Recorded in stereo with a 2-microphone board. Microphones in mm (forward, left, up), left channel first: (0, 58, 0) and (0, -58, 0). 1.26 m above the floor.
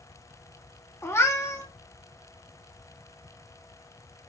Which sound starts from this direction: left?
A cat meowing, at 1.0 s.